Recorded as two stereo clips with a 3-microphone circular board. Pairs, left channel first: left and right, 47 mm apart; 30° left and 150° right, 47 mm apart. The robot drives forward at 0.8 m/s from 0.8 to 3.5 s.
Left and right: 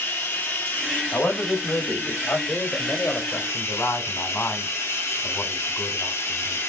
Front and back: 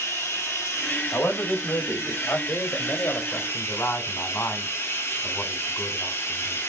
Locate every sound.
0.0 s running water: 50° left, 6 m; by 6.7 s 70° left, 4.5 m
1.1 s a man speaking: 55° left, 4.5 m; by 2.4 s 65° left, 4 m
2.5 s a man speaking: 50° left, 3 m; by 6.6 s 65° left, 2.5 m